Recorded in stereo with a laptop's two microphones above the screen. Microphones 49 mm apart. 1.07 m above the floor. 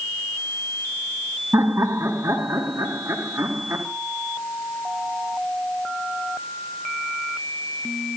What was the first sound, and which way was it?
Laughter, 75° right (ahead or behind).